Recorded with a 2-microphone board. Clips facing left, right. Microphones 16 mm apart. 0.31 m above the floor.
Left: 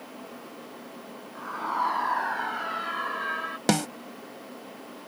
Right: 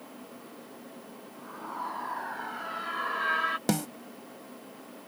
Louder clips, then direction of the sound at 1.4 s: Left 10 dB; 50° left (ahead or behind).